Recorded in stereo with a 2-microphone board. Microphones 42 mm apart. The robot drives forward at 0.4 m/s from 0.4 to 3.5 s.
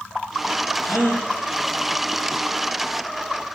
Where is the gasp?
70° left (ahead or behind), 8.5 m.